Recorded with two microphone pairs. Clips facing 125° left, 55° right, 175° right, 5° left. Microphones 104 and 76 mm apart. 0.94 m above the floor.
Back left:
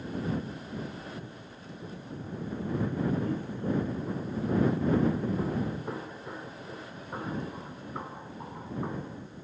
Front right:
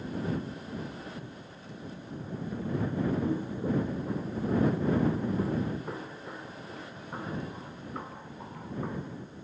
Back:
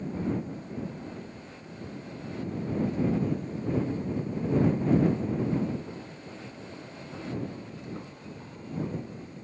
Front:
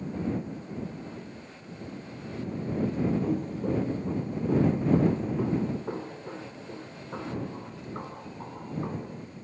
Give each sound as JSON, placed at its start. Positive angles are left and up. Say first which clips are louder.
{"t": 3.2, "sound": "footsteps", "louder": "front right 1 dB, front 2 dB", "azimuth_deg": 10}